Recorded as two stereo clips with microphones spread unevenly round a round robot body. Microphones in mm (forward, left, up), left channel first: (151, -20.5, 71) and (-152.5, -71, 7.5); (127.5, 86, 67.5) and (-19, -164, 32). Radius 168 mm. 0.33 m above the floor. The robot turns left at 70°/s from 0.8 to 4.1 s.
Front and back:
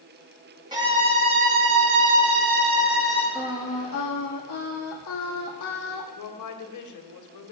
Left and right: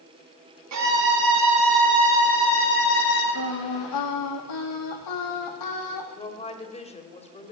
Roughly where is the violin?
Right.